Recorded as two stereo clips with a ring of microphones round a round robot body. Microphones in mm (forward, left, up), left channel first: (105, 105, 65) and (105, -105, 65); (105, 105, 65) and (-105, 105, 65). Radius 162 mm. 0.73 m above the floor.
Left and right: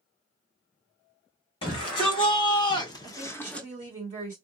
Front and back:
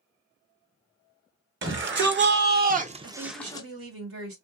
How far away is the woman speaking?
About 1.6 m.